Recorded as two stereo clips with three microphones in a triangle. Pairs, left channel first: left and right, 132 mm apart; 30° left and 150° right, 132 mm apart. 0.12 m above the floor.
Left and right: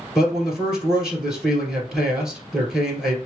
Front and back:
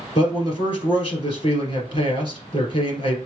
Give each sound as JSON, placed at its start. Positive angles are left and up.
{"t": 0.1, "sound": "a man speaking", "azimuth_deg": -5, "distance_m": 2.5}